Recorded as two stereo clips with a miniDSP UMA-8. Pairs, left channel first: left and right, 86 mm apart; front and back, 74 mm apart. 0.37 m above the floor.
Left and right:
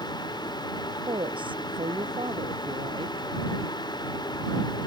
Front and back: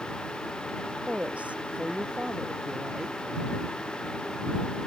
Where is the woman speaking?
110° right; by 3.3 s 100° right.